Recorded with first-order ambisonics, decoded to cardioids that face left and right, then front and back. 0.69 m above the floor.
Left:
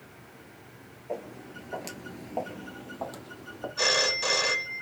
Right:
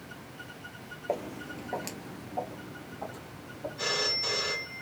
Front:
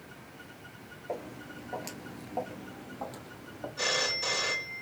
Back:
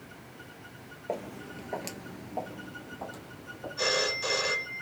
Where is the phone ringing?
85° left, 1.7 m.